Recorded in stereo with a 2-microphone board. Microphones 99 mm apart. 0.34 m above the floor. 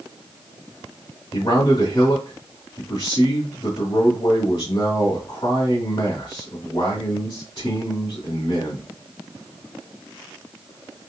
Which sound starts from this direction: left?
A man speaking, at 1.3 s.